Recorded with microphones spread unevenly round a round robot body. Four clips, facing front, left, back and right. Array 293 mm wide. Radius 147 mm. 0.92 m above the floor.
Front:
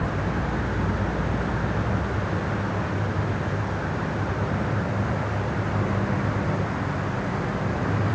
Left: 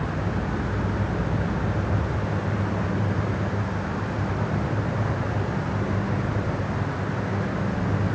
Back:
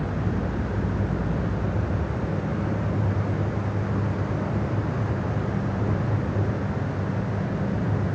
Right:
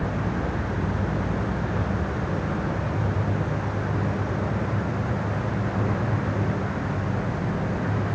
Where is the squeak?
No squeak in this recording.